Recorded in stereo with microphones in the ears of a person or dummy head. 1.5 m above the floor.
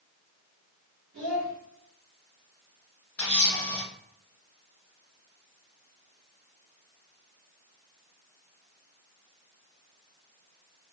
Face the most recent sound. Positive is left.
turn(degrees=5)  # may be behind; listen again after turning